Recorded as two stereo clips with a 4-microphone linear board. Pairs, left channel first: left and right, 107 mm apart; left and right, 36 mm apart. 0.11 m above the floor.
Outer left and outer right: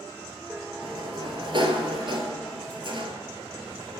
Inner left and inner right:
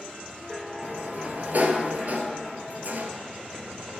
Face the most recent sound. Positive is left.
turn(degrees=-50)  # may be behind; listen again after turning